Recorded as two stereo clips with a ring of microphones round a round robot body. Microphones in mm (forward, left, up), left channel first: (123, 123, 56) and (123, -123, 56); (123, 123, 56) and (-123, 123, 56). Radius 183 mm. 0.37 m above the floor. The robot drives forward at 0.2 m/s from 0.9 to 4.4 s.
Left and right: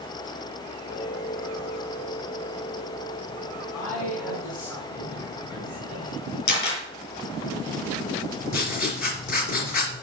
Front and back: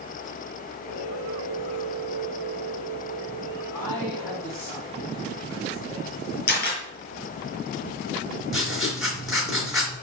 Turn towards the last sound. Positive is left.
turn(degrees=90)